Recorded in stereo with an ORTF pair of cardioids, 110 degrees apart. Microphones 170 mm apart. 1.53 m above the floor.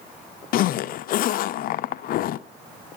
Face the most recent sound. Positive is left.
turn(degrees=60)